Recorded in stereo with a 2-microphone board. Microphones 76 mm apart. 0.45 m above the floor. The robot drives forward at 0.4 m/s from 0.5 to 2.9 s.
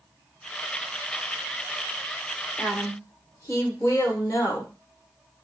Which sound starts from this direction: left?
A woman speaking, at 2.6 s.